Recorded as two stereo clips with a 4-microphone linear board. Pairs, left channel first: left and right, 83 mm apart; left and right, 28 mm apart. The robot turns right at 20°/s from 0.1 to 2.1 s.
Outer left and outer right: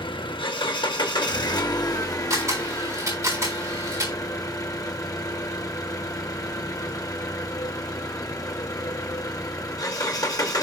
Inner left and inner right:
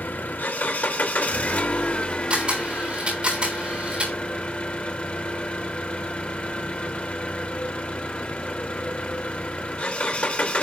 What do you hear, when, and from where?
0.0 s an engine running: 95° left, 1.0 m; by 10.6 s 135° left, 1.0 m
2.3 s a camera shutter: 40° right (ahead or behind), 3.5 m